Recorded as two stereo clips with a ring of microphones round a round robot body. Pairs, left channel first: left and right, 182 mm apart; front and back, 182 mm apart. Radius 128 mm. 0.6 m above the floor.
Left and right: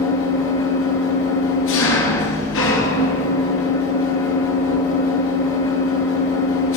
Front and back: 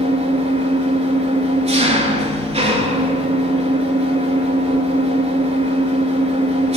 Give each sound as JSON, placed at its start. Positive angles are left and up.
{"t": 0.0, "sound": "an engine running", "azimuth_deg": 125, "distance_m": 2.5}